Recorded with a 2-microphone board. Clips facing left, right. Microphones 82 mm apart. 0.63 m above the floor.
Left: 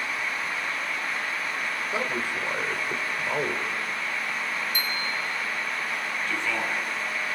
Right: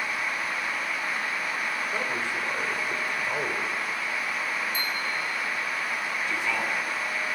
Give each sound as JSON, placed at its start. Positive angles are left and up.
{"t": 1.9, "sound": "a man speaking", "side_deg": 15, "distance_m": 2.5}
{"t": 4.7, "sound": "a bicycle bell", "side_deg": 70, "distance_m": 3.5}
{"t": 6.3, "sound": "a man speaking", "side_deg": -10, "distance_m": 5.5}